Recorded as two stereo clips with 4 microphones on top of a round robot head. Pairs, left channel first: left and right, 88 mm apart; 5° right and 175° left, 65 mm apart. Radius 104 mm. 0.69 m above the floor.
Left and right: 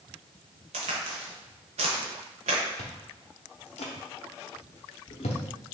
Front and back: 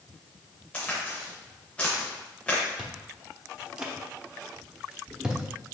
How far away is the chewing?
About 0.7 m.